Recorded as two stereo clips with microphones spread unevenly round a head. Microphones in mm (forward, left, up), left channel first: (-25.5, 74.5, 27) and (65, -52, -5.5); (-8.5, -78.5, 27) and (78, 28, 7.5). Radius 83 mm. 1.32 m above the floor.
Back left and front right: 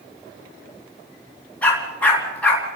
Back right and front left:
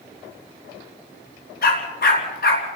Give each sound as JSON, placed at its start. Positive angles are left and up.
{"t": 1.6, "sound": "a dog barking", "azimuth_deg": -155, "distance_m": 3.5}